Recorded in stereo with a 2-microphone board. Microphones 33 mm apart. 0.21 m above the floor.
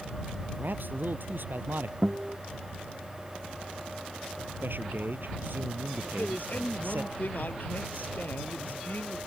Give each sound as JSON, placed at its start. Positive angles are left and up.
{"t": 0.6, "sound": "a man speaking", "side_deg": -70}
{"t": 2.0, "sound": "a guitar", "side_deg": -35}
{"t": 4.6, "sound": "a man speaking", "side_deg": -75}
{"t": 6.0, "sound": "a man speaking", "side_deg": 60}